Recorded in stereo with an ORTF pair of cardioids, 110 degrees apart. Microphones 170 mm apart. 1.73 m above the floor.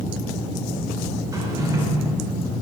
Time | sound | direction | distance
1.3 | a drawer | 20° right | 3.5 m